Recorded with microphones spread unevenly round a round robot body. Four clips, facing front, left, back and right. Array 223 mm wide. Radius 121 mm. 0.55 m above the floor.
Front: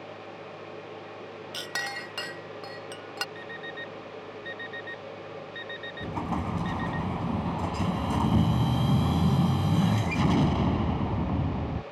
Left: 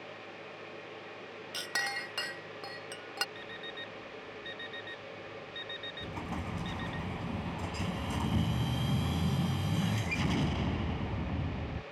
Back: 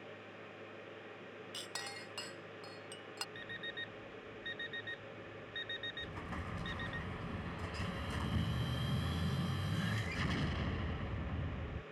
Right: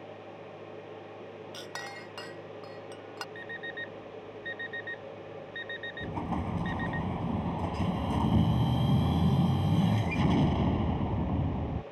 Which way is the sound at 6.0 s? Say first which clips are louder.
Right 6 dB, front 18 dB; 25° right.